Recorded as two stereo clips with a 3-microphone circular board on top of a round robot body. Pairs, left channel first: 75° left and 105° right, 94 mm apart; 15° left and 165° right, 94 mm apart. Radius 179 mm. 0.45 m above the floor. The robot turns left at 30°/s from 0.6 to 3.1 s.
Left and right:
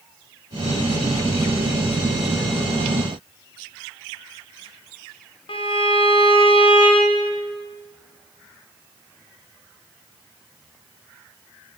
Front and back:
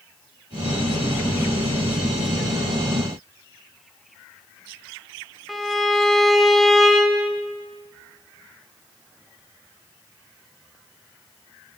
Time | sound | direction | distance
5.5 | a violin | 105° left | 2.5 m